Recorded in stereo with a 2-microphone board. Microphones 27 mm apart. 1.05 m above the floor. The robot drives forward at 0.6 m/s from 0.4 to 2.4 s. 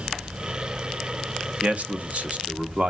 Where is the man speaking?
55° right (ahead or behind), 0.8 m; by 2.9 s 45° right (ahead or behind), 0.9 m.